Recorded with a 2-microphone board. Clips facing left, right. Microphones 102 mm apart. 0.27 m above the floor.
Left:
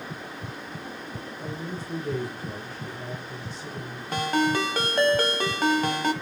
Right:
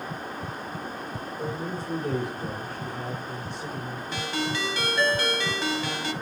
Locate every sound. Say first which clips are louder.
1.4 s a man speaking: right 4 dB; 55° right (ahead or behind), 5.5 m
4.1 s a ringtone: left 7 dB; 50° left (ahead or behind), 1.1 m